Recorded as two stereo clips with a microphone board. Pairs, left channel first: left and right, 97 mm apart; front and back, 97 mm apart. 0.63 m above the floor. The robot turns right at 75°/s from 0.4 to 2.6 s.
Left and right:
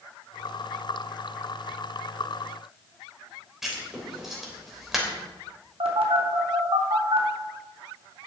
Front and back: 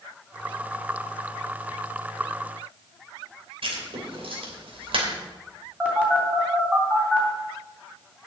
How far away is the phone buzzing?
About 3 m.